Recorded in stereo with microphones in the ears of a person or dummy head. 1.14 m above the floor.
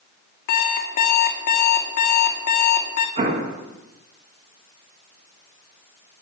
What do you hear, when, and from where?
0.5 s an alarm clock: 55° left (ahead or behind), 1.4 m
3.2 s an explosion: 35° right (ahead or behind), 1.6 m